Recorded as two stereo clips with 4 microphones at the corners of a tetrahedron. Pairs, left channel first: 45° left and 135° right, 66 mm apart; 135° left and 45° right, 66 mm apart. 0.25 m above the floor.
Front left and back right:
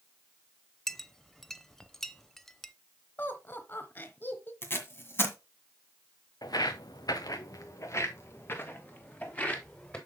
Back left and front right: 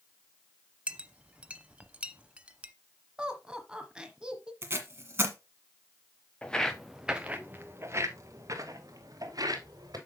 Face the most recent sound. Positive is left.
turn(degrees=-25)